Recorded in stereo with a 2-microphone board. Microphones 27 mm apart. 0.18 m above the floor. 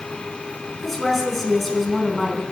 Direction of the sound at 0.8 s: 5° left (ahead or behind).